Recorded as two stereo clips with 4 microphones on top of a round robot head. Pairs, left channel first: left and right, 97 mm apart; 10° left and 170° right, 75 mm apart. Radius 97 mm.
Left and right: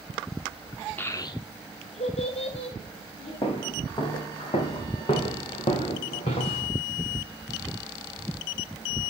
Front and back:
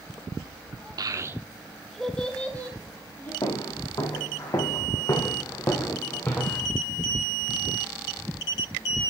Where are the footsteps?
50° left, 3.5 m; by 6.7 s 80° left, 2 m.